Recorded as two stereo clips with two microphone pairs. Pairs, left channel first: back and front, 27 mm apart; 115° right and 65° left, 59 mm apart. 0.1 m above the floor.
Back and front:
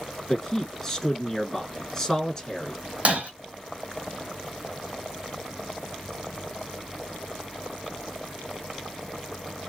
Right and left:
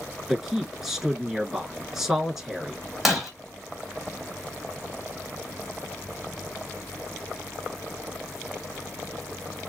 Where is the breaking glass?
25° right, 1.0 m.